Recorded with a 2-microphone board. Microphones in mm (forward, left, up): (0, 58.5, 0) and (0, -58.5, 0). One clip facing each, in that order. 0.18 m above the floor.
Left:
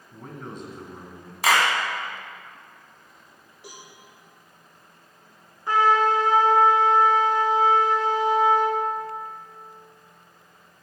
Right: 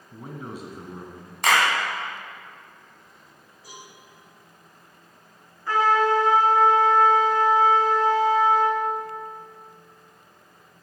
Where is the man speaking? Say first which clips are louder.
Right 1 dB; 10° right (ahead or behind), 1.7 m.